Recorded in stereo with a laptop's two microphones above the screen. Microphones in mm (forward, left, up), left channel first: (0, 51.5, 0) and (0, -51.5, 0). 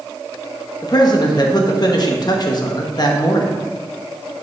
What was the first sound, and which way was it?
A man speaking, 40° left (ahead or behind).